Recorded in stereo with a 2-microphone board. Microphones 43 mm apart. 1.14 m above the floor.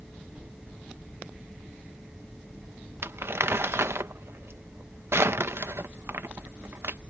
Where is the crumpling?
70° right (ahead or behind).